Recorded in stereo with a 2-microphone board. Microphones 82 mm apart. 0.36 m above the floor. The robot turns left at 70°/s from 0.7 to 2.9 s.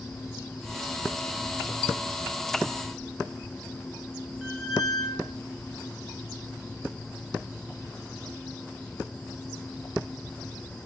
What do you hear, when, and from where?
4.4 s a squeak: 5° right (ahead or behind), 0.7 m